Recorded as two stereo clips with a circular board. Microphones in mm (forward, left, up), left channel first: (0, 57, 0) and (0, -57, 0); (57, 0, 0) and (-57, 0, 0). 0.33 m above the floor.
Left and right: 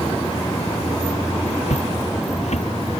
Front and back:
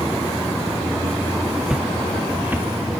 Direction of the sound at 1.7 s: 95° left.